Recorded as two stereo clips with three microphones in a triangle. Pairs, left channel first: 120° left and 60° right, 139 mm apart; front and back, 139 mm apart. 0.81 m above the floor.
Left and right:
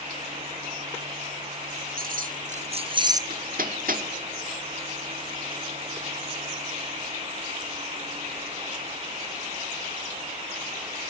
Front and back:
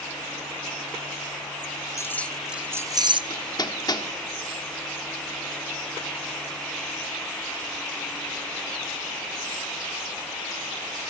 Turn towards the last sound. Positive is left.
turn(degrees=-60)